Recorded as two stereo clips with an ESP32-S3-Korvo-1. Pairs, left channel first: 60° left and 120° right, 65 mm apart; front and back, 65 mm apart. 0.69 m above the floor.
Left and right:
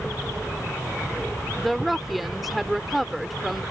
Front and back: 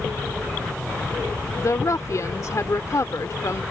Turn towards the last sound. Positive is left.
turn(degrees=-30)